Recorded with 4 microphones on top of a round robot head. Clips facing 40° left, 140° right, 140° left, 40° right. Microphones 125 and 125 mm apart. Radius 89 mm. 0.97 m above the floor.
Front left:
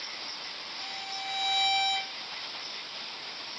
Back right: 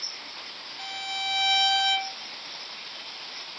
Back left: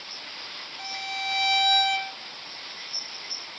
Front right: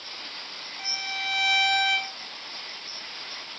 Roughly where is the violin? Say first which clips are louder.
Back right 5 dB, back left 3 dB; behind.